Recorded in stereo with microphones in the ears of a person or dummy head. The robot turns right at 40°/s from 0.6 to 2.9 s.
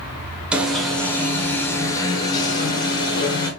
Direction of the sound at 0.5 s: 5° right (ahead or behind).